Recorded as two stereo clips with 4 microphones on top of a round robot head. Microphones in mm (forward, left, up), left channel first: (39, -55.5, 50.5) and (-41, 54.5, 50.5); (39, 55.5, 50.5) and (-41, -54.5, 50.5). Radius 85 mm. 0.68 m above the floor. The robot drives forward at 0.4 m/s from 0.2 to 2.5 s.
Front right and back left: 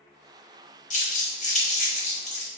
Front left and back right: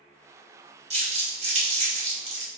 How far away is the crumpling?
About 4 m.